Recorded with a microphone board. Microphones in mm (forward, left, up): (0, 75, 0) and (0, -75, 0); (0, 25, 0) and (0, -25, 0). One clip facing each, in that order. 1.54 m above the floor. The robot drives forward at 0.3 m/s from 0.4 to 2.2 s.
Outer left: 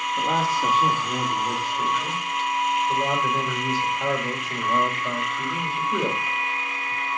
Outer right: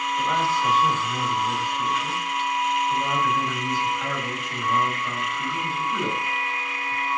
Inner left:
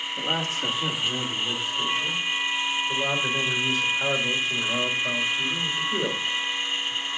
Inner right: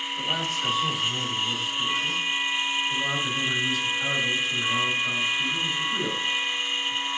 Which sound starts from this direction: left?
A man speaking, at 0.2 s.